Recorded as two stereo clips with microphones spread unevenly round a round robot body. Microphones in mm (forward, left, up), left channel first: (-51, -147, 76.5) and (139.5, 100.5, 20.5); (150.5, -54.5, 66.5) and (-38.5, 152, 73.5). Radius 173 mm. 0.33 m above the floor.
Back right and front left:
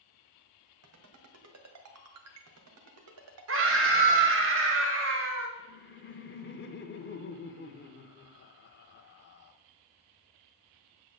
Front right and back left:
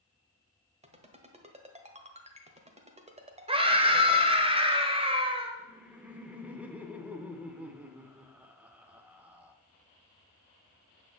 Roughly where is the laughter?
Behind right.